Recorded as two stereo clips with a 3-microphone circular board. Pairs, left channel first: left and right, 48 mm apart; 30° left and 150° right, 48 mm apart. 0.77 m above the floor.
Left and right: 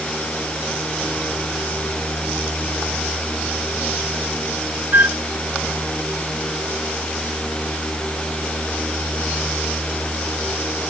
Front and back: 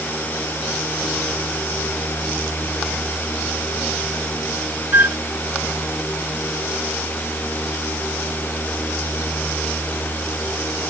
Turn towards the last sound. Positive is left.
turn(degrees=-125)